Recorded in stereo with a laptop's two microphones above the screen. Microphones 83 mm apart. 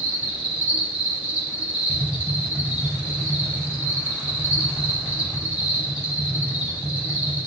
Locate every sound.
0.0 s an insect: 20° right (ahead or behind), 0.9 m
1.9 s tapping: 65° left (ahead or behind), 0.9 m